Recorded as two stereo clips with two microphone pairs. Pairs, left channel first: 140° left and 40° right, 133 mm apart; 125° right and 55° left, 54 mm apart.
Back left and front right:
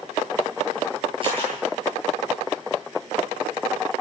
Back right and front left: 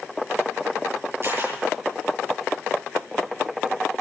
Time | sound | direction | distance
1.2 | a camera shutter | 10° left | 10 m